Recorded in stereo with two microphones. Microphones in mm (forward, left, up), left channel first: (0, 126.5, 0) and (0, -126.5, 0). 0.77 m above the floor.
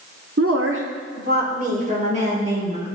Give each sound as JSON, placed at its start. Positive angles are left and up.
{"t": 0.4, "sound": "a woman speaking", "side_deg": -60, "distance_m": 1.3}